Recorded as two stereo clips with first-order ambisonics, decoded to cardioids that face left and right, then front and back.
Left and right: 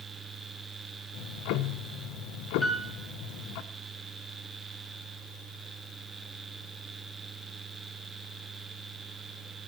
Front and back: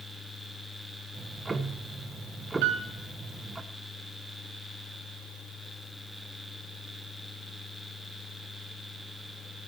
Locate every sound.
1.1 s ticking: 105° left, 0.8 m
2.6 s a piano: 175° left, 3 m